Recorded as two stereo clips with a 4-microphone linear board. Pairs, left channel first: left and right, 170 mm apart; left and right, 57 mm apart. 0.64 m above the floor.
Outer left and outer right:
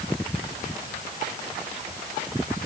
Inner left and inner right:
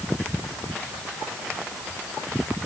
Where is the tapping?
No tapping in this recording.